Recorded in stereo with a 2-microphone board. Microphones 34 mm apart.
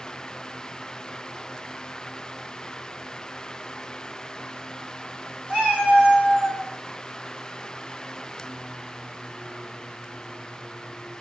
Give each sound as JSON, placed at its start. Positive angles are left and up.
{"t": 5.5, "sound": "a cat meowing", "side_deg": -45, "distance_m": 2.5}